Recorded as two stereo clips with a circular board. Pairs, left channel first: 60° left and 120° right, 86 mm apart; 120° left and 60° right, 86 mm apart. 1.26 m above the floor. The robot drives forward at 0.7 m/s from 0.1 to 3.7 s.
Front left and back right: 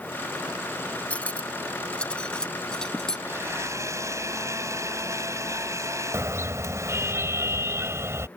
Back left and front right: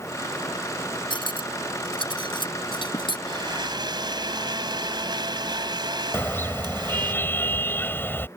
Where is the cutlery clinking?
135° left; by 3.2 s 145° left.